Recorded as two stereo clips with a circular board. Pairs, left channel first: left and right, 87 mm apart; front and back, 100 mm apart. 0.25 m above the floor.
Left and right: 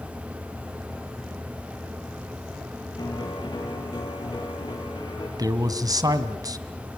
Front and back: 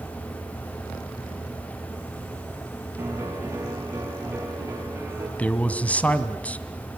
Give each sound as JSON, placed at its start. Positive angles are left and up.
{"t": 3.0, "sound": "a piano", "azimuth_deg": 115, "distance_m": 6.5}
{"t": 5.4, "sound": "a man speaking", "azimuth_deg": -70, "distance_m": 1.7}